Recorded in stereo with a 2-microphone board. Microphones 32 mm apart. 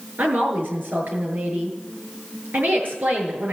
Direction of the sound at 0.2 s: 75° right (ahead or behind).